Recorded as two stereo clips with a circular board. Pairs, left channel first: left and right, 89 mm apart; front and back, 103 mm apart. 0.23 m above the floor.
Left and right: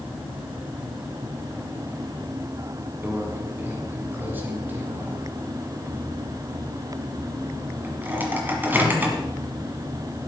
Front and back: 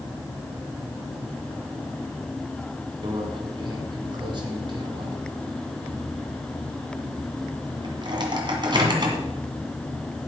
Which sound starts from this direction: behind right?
A microwave, at 3.0 s.